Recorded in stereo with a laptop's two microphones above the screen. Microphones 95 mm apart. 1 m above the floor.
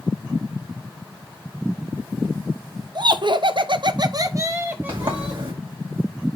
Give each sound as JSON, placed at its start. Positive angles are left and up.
{"t": 3.0, "sound": "laughter", "side_deg": -50, "distance_m": 0.9}
{"t": 4.9, "sound": "a sliding door", "side_deg": -55, "distance_m": 2.5}